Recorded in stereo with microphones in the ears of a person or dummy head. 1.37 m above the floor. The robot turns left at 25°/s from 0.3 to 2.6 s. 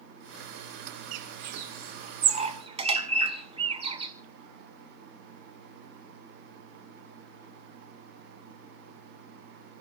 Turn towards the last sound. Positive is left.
turn(degrees=-30)  # may be behind; listen again after turning